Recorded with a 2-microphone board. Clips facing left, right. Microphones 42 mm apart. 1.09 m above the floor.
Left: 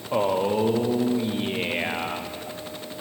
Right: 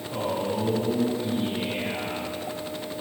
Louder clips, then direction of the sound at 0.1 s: Left 6 dB; 50° left (ahead or behind).